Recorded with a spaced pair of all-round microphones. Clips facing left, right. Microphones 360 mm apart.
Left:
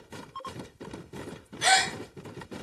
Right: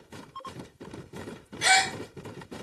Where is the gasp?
35° right (ahead or behind), 0.8 m.